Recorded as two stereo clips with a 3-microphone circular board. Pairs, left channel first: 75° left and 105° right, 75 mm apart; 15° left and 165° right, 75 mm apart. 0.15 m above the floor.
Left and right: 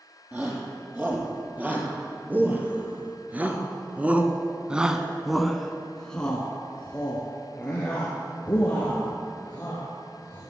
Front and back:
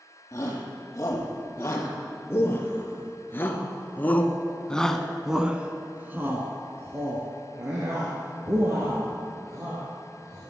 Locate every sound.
0.3 s a shout: 40° right, 4 m; by 10.4 s 145° left, 4.5 m